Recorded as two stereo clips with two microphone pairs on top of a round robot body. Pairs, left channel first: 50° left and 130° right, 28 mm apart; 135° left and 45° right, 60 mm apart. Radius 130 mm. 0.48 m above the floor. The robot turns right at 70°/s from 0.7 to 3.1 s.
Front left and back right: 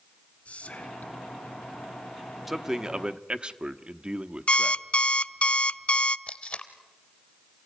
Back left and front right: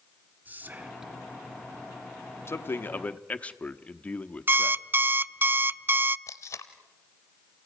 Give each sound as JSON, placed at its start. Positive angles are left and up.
{"t": 0.5, "sound": "whispering", "azimuth_deg": 15, "distance_m": 1.7}
{"t": 2.5, "sound": "a man speaking", "azimuth_deg": 150, "distance_m": 1.0}
{"t": 4.5, "sound": "an alarm clock", "azimuth_deg": 5, "distance_m": 0.6}
{"t": 6.3, "sound": "tape being pulled", "azimuth_deg": 95, "distance_m": 0.8}